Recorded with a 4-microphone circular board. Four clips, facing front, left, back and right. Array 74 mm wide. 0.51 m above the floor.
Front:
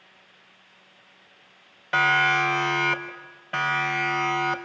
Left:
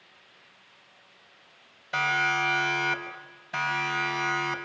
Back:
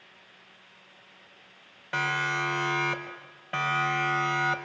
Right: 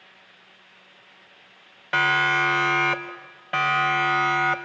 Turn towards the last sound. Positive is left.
turn(degrees=-100)